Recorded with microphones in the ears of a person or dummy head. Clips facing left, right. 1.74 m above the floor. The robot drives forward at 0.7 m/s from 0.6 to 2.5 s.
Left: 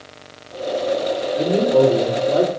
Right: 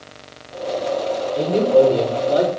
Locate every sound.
1.4 s a man speaking: 65° left (ahead or behind), 5 m; by 2.5 s 70° left (ahead or behind), 5 m